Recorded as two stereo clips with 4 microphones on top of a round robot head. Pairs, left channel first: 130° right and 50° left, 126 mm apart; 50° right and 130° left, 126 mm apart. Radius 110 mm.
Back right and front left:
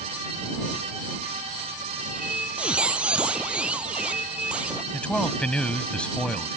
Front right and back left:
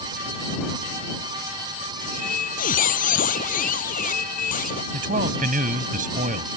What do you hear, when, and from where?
2.0 s a squeak: 35° right
4.9 s a man speaking: 145° left